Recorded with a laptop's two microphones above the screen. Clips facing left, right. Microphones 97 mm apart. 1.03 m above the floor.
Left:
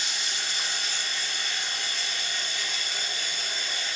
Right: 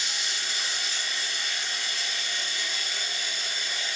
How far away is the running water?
About 1.3 m.